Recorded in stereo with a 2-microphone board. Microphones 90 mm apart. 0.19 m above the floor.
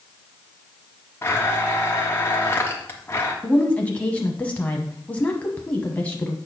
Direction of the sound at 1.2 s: 25° left (ahead or behind).